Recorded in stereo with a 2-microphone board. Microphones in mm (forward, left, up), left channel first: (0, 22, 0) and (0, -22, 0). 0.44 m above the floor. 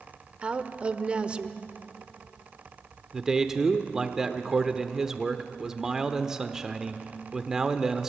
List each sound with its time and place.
0.4 s a woman speaking: 25° right (ahead or behind), 1.0 m
3.1 s a man speaking: 15° right (ahead or behind), 1.0 m